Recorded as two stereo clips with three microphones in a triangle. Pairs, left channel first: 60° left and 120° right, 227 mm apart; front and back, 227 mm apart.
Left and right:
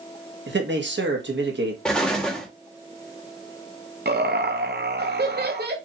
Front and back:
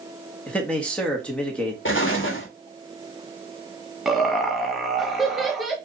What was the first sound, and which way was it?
A man speaking, 85° right.